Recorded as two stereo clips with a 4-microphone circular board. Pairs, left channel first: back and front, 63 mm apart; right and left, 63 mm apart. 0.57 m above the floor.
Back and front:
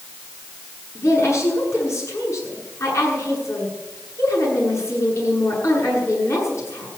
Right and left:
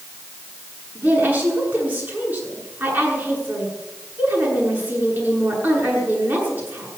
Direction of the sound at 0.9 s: 145° left.